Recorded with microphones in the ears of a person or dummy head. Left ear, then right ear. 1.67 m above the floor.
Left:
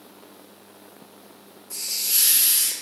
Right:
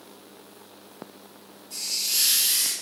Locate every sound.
1.7 s a hiss: 40° left (ahead or behind), 0.6 m